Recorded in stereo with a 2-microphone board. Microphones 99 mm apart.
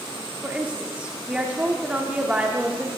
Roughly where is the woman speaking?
Centre.